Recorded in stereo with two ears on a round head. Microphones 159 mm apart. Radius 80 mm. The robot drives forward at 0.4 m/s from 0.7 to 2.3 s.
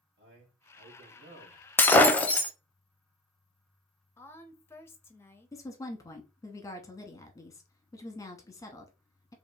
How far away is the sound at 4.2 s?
About 0.6 m.